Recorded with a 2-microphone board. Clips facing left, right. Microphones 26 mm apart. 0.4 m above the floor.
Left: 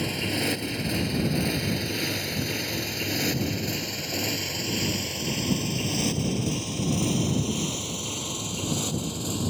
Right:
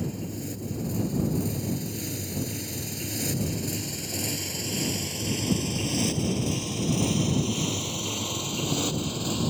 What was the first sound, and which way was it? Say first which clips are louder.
A motorcycle: left 7 dB; 65° left (ahead or behind).